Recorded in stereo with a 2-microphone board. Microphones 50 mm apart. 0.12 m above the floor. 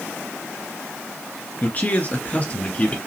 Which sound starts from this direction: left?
A man speaking, at 1.6 s.